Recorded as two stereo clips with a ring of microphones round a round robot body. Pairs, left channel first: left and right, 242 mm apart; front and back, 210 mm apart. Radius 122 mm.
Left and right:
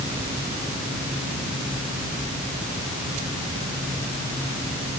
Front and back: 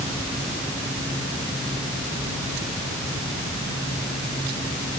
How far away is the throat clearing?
No throat clearing in this recording.